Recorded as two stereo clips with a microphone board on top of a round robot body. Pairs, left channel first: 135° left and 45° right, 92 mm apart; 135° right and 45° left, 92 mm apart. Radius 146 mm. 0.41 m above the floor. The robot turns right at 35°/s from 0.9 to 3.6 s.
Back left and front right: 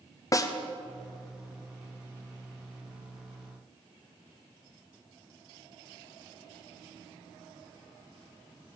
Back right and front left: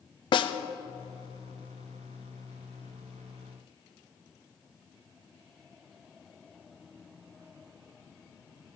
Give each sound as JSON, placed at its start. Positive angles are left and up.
{"t": 0.3, "sound": "a snare drum", "azimuth_deg": -170, "distance_m": 0.7}